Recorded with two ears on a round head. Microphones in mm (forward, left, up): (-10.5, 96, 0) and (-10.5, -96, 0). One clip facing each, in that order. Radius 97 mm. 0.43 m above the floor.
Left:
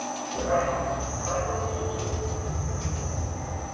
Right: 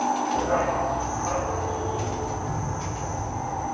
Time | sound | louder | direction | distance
0.3 | a dog barking | left 2 dB | 10° right (ahead or behind) | 6 m